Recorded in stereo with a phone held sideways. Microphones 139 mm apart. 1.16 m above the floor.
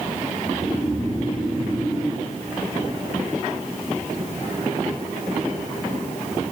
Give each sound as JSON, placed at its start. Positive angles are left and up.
{"t": 0.5, "sound": "snoring", "side_deg": -25, "distance_m": 2.5}